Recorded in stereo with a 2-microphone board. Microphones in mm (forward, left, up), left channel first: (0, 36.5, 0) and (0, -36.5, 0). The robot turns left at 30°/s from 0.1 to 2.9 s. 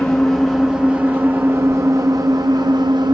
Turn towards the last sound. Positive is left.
turn(degrees=-75)